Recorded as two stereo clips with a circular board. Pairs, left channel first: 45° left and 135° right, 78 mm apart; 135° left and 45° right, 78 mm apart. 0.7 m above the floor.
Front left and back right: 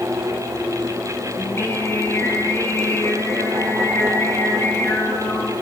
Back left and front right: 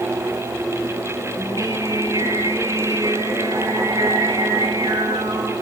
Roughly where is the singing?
Ahead.